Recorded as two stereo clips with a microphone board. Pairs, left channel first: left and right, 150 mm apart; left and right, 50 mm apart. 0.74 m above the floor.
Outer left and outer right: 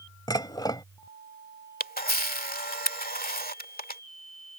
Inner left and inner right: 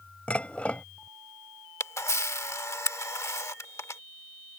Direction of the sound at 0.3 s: 25° left (ahead or behind).